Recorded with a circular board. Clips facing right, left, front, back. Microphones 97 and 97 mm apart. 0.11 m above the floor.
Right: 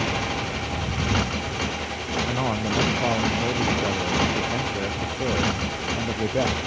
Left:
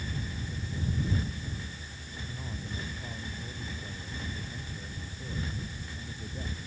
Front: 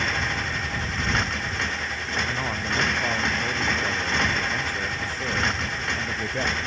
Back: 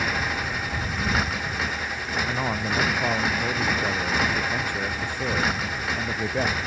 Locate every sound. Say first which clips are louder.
0.0 s a motorcycle: right 13 dB, even; 95° right
2.3 s a man speaking: right 16 dB, back 2 dB; 105° right